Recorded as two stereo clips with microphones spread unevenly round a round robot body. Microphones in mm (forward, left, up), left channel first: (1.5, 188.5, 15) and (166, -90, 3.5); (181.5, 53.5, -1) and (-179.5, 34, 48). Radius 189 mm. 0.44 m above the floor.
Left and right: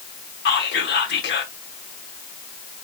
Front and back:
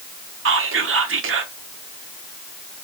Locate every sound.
0.5 s whispering: 145° left, 0.8 m